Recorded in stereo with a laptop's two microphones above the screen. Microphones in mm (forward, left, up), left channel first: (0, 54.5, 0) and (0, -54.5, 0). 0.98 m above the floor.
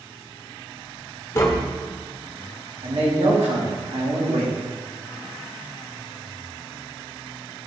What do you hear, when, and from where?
1.4 s tapping: 30° left (ahead or behind), 1.2 m
2.8 s a man speaking: 70° right (ahead or behind), 2 m